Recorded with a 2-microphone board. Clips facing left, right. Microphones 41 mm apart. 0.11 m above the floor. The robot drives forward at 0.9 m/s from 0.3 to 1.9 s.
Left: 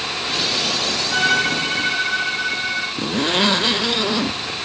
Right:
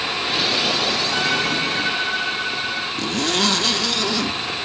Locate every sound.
1.1 s a violin: 55° left (ahead or behind), 8 m
3.0 s a zipper: 20° left (ahead or behind), 0.6 m